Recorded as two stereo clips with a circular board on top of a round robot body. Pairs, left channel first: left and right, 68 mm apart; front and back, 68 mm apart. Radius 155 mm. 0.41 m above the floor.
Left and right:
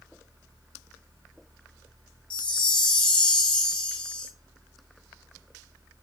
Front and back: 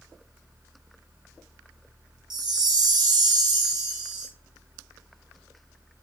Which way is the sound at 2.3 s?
165° left.